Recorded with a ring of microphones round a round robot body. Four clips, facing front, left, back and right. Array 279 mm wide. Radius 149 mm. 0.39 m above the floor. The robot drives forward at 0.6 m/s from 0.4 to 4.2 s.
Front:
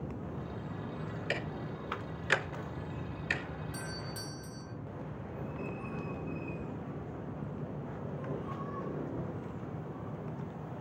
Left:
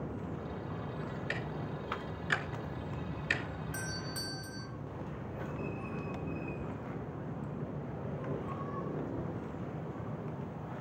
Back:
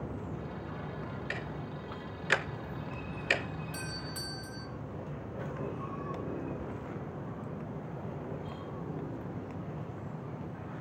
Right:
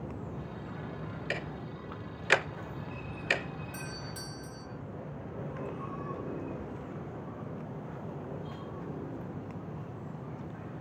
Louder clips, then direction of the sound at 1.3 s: Right 1 dB, front 2 dB; 45° right.